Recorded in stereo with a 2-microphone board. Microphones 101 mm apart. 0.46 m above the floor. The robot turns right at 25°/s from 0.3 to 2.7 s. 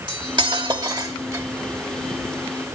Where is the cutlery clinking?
50° right (ahead or behind), 0.8 m; by 1.5 s 25° right (ahead or behind), 0.8 m.